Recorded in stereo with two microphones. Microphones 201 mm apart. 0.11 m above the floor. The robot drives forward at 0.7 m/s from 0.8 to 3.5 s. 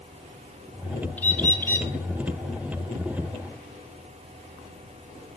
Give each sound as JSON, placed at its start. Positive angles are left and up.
{"t": 1.2, "sound": "a bird", "side_deg": 10, "distance_m": 1.2}